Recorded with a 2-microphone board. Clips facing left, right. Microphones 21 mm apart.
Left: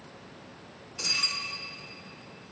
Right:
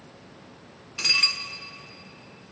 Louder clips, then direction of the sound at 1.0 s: Right 6 dB; 45° right (ahead or behind).